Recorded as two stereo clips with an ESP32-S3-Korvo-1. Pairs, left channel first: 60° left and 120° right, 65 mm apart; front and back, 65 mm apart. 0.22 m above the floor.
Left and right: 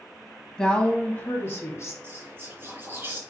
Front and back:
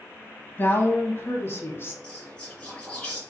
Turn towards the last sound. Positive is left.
turn(degrees=-75)